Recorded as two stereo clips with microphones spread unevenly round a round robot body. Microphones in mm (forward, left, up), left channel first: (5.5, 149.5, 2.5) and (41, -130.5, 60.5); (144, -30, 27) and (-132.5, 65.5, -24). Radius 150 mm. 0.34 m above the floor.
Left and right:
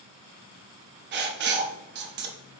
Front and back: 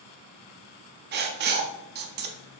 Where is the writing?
140° right, 0.5 m.